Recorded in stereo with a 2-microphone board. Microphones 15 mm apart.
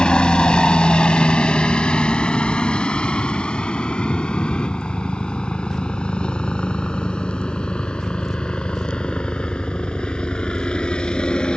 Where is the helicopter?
55° left (ahead or behind); by 11.6 s 65° left (ahead or behind).